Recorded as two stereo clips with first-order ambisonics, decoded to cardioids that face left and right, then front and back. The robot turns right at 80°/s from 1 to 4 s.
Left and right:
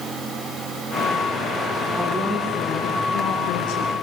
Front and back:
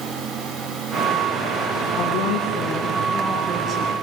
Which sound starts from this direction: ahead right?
A woman speaking, at 2.0 s.